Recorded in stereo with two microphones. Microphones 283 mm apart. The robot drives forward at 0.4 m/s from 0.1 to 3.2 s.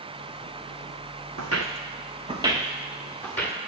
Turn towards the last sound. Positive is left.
turn(degrees=5)  # may be behind; listen again after turning